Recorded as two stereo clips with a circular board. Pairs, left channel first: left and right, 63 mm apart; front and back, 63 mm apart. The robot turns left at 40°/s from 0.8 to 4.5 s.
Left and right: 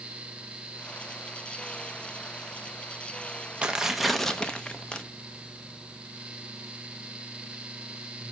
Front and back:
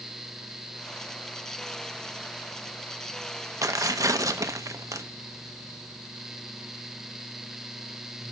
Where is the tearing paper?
165° right, 0.8 m; by 5.0 s 160° left, 0.8 m.